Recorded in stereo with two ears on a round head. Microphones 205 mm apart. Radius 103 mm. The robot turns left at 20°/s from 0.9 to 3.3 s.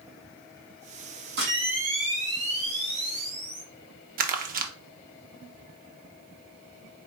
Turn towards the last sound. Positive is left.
turn(degrees=-40)  # may be behind; listen again after turning